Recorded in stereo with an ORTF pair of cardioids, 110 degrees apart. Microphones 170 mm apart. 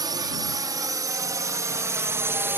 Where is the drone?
25° right; by 2.6 s 15° right.